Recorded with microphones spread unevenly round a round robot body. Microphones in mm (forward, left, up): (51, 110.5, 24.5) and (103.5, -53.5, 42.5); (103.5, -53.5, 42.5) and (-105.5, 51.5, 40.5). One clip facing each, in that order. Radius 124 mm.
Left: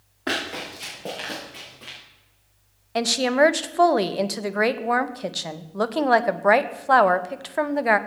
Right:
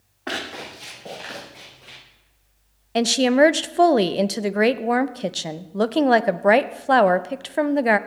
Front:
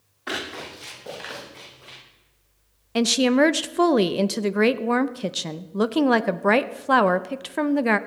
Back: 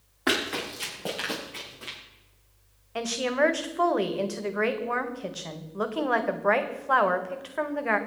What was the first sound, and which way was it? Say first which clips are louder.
Running footsteps: left 2 dB, back 5 dB; 175° left.